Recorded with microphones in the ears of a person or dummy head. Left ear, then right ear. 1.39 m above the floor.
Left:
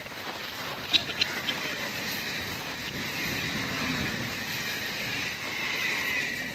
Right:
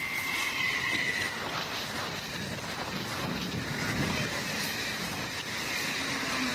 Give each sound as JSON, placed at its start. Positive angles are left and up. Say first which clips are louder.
{"t": 0.9, "sound": "a cough", "louder": "left 4 dB", "side_deg": 70}